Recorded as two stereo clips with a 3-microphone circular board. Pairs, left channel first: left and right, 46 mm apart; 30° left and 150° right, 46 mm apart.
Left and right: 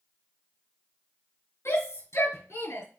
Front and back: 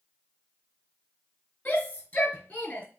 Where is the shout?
75° left, 4.5 m; by 2.9 s 85° left, 5 m.